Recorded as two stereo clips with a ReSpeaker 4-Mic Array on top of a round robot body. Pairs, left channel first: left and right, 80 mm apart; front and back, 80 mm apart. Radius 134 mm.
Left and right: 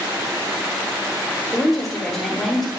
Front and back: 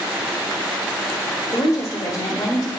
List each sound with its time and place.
1.5 s a woman speaking: straight ahead, 1.6 m